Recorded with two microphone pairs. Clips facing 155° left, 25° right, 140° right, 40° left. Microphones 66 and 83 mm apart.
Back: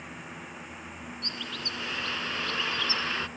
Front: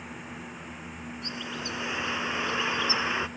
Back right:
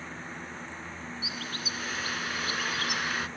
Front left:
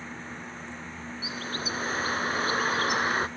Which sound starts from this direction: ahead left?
A bird, at 1.2 s.